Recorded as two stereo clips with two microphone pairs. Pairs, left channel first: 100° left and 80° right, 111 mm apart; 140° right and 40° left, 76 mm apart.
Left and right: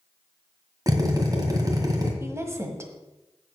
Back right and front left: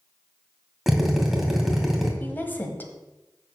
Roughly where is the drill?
Ahead right.